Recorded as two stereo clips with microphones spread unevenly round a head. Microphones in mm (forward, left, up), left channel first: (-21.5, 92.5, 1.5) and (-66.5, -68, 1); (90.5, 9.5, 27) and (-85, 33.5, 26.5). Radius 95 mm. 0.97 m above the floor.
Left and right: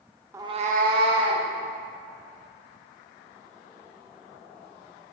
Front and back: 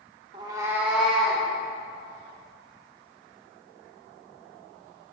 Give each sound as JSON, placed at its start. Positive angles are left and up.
{"t": 0.3, "sound": "a cat meowing", "azimuth_deg": -160, "distance_m": 0.5}